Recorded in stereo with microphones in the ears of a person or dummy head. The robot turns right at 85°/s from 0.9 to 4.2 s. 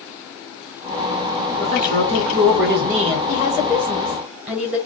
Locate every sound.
1.6 s a man speaking: 155° right, 1.0 m; by 3.2 s 20° right, 1.0 m
3.3 s a woman speaking: 110° left, 1.0 m; by 4.8 s 170° right, 1.0 m